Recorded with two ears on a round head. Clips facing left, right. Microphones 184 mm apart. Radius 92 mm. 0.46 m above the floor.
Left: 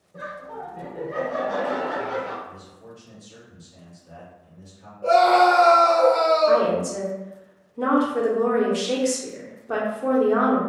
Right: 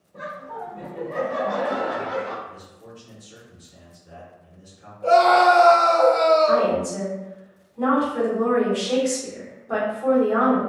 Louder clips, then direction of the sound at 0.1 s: Right 1 dB; 25° left (ahead or behind).